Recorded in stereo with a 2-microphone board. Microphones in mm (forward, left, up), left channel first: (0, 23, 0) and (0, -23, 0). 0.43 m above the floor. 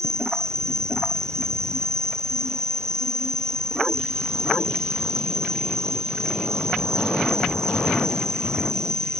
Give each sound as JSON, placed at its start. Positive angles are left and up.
{"t": 0.0, "sound": "an insect", "side_deg": -85}